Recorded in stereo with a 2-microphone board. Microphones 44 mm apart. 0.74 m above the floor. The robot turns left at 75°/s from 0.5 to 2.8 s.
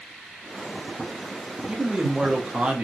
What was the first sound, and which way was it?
A man speaking, 15° right (ahead or behind).